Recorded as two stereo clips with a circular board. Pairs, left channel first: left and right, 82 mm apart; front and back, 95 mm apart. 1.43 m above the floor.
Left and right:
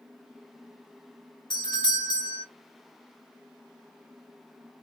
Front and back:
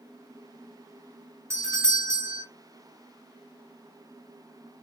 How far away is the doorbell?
About 1.5 m.